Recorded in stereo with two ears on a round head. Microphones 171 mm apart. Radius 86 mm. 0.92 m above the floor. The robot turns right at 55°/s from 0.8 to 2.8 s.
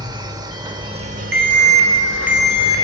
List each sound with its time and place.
0.0 s an insect: 155° right, 1.2 m; by 2.8 s 45° right, 1.2 m
1.3 s an alarm: 60° right, 4 m; by 2.8 s 20° left, 4 m